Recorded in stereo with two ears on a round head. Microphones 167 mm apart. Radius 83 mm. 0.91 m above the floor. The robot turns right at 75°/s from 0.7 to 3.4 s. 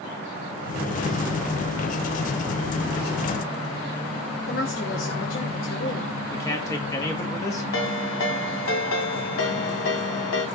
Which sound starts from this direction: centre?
A man speaking, at 6.3 s.